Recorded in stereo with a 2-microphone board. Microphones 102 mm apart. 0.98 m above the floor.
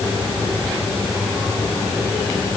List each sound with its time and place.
Only background noise.